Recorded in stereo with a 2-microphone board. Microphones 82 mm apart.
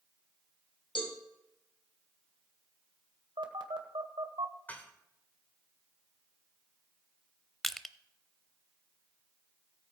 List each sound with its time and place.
0.9 s a cowbell: 80° left, 3 m
3.4 s a phone buzzing: 90° right, 1.6 m
4.7 s dishes clattering: 20° left (ahead or behind), 1.8 m
7.6 s crushing: centre (ahead or behind), 0.6 m